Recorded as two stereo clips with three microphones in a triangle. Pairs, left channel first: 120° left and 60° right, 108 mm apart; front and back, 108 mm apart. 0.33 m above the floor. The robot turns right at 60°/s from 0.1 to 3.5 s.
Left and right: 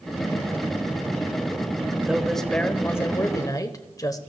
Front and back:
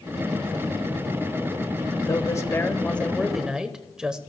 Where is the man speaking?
15° left, 1.1 m; by 4.2 s 105° left, 1.1 m.